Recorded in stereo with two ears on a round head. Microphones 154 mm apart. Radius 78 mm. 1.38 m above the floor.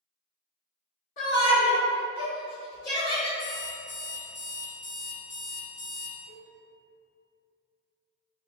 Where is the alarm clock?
70° left (ahead or behind), 1.8 m.